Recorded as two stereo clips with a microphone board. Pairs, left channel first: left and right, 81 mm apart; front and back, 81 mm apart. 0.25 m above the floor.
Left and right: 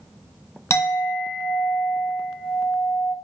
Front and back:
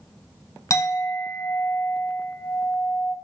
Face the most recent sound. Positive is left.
turn(degrees=40)